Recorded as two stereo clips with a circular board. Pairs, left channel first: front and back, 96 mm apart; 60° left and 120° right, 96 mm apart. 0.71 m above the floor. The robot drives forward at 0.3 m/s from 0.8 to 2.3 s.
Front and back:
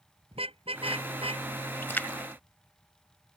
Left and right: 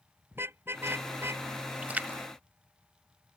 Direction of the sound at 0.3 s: 175° left.